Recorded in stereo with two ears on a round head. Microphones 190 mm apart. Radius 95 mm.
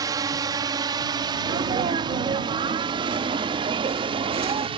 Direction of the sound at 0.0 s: 20° right (ahead or behind).